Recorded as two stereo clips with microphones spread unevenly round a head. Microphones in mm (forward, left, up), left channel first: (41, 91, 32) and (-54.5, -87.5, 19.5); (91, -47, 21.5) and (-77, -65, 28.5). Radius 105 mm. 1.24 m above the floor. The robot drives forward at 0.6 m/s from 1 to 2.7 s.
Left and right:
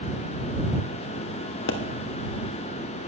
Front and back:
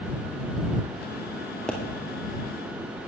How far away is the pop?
About 1.5 m.